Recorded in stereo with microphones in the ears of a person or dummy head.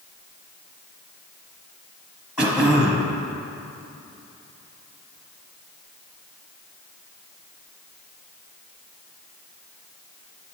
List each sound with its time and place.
2.4 s throat clearing: centre (ahead or behind), 1.1 m